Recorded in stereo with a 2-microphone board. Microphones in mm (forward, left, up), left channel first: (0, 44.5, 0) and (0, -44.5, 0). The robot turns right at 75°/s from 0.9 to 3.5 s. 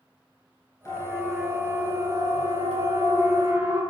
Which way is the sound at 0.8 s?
35° left (ahead or behind).